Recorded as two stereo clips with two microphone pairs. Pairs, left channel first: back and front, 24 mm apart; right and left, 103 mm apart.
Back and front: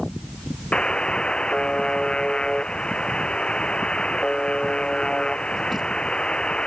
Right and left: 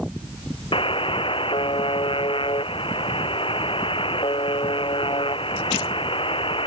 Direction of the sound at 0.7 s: 125° right.